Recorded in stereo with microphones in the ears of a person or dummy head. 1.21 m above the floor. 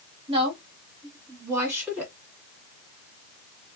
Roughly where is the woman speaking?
Centre.